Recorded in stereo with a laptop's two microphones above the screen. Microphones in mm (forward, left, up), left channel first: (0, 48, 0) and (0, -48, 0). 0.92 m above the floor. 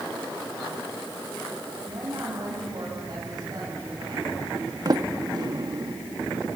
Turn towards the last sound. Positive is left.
turn(degrees=-45)  # may be behind; listen again after turning